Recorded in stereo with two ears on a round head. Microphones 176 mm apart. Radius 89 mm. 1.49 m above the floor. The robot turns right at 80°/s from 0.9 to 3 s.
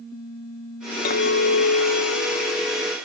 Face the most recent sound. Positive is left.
turn(degrees=-155)